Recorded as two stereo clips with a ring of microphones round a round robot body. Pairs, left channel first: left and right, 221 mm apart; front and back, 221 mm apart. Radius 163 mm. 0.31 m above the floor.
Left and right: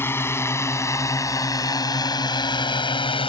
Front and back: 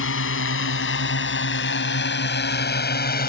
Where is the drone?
10° left; by 3.3 s 30° left.